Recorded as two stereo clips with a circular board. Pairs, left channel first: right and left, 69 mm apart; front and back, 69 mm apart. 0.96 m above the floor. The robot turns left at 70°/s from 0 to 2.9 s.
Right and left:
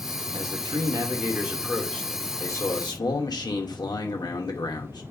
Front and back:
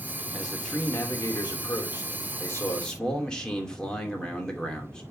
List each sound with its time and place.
0.3 s a man speaking: 100° left, 2 m; by 5.0 s 80° right, 2 m